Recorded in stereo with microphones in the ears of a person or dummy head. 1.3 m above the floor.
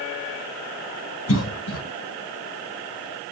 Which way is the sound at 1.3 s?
75° left (ahead or behind).